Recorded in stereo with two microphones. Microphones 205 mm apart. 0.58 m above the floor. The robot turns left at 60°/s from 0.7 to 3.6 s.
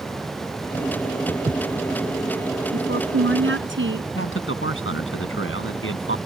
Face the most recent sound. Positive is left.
turn(degrees=80)